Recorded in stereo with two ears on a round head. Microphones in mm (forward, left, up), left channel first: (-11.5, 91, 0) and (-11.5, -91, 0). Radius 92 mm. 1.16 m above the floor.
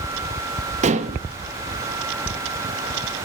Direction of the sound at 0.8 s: 35° right (ahead or behind).